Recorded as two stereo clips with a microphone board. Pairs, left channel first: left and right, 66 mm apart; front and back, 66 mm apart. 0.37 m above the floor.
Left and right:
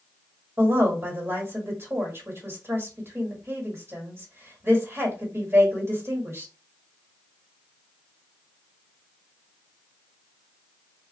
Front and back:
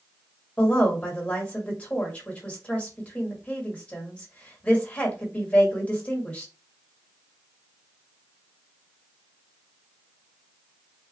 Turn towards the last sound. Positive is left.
turn(degrees=-60)